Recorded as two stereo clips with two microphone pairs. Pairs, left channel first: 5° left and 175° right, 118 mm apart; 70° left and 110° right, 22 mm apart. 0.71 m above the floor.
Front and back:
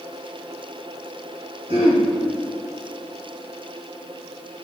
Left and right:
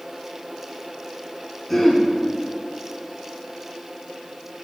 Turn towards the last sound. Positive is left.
turn(degrees=155)